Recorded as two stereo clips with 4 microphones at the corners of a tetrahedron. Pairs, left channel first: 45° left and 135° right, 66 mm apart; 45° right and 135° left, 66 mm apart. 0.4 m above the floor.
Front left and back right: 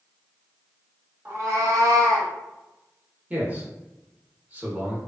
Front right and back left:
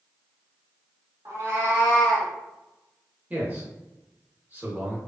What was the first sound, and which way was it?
A cat meowing, 170° left.